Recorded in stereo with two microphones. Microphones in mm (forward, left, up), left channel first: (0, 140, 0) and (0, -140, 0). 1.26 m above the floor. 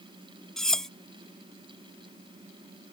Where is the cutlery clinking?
Centre (ahead or behind).